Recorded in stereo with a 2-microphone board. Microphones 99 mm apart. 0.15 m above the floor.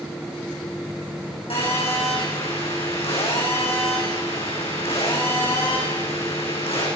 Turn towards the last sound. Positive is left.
turn(degrees=80)